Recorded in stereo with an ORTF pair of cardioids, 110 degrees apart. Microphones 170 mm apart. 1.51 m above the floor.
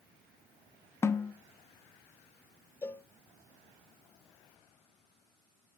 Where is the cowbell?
15° left, 1.1 m.